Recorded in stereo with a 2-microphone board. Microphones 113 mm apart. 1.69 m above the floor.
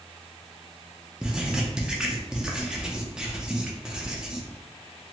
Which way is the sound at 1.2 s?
5° right (ahead or behind).